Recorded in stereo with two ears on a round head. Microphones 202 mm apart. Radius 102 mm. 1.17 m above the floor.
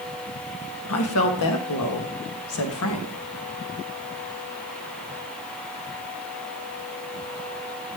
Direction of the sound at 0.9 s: 75° left (ahead or behind).